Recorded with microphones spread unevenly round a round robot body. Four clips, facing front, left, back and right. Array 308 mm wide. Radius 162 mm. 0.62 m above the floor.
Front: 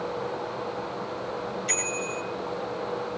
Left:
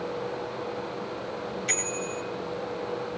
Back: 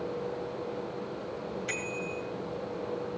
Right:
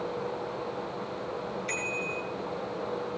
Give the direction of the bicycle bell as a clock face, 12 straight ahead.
8 o'clock.